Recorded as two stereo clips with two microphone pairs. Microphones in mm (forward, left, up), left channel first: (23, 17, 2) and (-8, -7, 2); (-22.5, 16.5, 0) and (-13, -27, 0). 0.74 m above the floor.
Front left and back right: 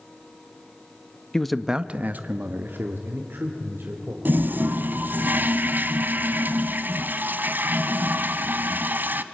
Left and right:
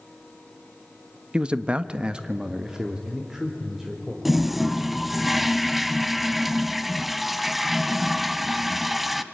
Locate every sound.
1.3 s a man speaking: 25° right, 0.9 m; by 4.2 s 160° right, 3.5 m
4.2 s a toilet flushing: 160° right, 1.0 m